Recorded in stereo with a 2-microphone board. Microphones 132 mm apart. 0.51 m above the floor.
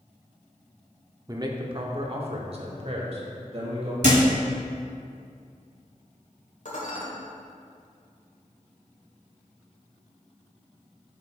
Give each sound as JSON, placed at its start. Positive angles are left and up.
{"t": 1.3, "sound": "a man speaking", "side_deg": -25, "distance_m": 0.8}
{"t": 4.0, "sound": "a thud", "side_deg": -70, "distance_m": 1.4}
{"t": 6.7, "sound": "dishes clattering", "side_deg": 60, "distance_m": 1.4}